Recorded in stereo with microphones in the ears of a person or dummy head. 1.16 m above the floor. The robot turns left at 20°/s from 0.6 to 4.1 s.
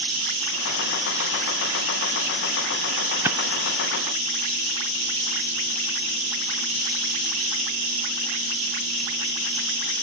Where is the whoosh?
15° right (ahead or behind); by 3.4 s 20° right (ahead or behind).